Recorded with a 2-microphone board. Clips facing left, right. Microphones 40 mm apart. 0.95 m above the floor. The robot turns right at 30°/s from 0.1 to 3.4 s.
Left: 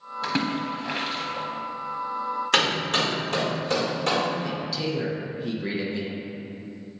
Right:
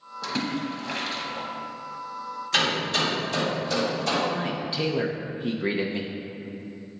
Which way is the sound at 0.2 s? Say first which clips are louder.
Left 2 dB; 40° left (ahead or behind).